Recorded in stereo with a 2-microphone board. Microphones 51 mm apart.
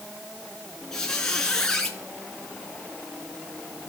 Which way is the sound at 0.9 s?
10° left (ahead or behind).